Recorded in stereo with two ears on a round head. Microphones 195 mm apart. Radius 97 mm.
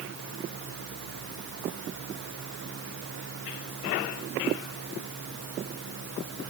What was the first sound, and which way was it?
Only background noise.